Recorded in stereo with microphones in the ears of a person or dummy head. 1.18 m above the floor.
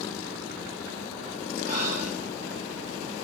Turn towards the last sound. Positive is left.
turn(degrees=85)